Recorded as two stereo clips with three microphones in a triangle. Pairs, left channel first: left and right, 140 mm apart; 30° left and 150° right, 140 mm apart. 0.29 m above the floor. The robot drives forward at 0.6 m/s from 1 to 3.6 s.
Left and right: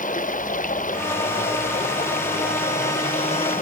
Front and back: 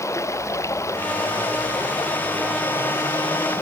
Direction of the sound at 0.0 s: 100° left.